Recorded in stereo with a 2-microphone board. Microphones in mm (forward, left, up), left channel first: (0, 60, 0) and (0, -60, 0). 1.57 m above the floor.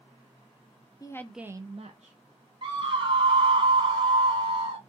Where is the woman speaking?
30° left (ahead or behind), 0.6 m; by 2.2 s 65° right (ahead or behind), 1.0 m.